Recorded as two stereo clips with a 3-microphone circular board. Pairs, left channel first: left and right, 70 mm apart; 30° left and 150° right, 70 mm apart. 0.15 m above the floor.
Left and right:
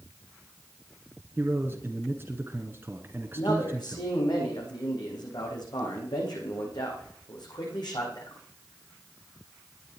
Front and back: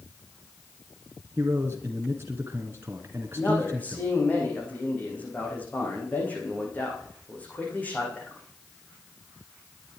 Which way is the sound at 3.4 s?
95° left.